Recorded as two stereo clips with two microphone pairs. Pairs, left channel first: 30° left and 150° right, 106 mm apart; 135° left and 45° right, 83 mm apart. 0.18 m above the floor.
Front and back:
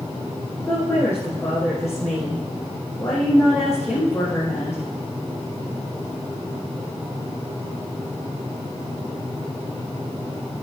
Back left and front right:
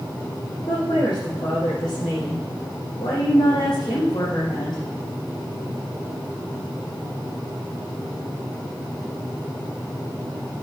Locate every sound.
0.7 s a woman speaking: 105° left, 7 m